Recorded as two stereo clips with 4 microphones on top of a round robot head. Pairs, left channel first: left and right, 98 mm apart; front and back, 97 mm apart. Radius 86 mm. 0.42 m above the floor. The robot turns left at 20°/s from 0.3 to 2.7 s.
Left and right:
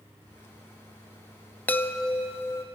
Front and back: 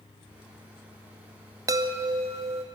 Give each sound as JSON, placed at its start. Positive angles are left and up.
{"t": 1.7, "sound": "a chime", "azimuth_deg": 155, "distance_m": 0.6}